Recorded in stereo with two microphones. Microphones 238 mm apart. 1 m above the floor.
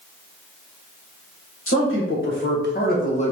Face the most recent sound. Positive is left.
turn(degrees=25)  # may be behind; listen again after turning